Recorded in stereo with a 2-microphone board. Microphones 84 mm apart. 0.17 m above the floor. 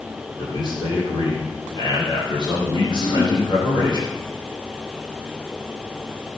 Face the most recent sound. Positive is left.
turn(degrees=85)